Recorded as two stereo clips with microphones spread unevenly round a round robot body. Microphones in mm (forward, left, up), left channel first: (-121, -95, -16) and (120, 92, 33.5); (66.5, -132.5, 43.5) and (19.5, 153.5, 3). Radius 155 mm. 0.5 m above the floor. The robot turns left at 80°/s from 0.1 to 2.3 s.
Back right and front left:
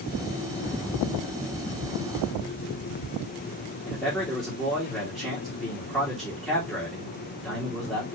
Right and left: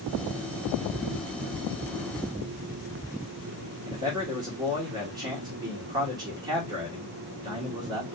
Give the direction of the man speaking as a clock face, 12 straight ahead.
7 o'clock.